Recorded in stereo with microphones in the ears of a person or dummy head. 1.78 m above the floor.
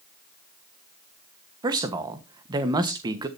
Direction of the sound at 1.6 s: 25° right (ahead or behind).